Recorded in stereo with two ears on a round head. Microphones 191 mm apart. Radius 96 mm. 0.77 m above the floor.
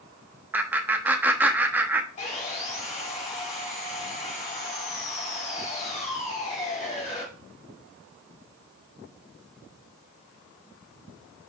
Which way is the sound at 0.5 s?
10° right (ahead or behind).